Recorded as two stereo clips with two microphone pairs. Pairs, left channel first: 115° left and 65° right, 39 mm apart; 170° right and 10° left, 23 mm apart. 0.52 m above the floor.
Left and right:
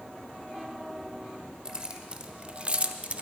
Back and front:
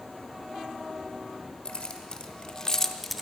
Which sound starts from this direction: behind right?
Keys jangling, at 1.6 s.